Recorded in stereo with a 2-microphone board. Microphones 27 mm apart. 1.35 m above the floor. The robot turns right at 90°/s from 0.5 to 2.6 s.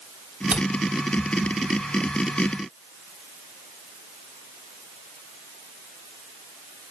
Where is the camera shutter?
80° right, 4 m; by 0.6 s 85° right, 4 m.